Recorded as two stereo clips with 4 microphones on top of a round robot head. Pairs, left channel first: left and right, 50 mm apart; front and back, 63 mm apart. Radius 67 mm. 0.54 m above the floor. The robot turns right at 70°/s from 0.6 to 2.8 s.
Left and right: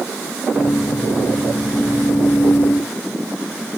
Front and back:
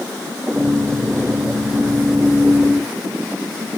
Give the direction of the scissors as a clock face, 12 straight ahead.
I don't hear scissors.